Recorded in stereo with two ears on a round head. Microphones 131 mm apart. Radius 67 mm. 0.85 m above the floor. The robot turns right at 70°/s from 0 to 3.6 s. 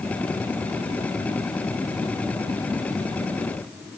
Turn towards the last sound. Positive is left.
No sound to turn to.